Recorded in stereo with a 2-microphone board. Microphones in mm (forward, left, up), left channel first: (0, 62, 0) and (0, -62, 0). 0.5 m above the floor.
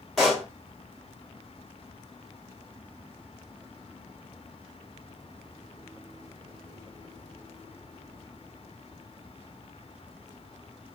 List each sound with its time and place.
0.2 s a pop: centre (ahead or behind), 1.4 m